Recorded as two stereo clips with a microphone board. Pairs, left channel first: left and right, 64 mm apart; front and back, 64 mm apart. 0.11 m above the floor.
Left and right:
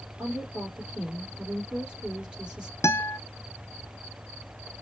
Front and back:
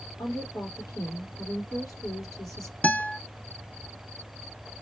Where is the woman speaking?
15° right, 3.5 m.